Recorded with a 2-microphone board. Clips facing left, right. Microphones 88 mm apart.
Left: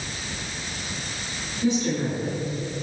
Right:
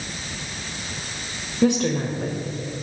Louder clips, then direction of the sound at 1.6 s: Right 4 dB; 70° right (ahead or behind).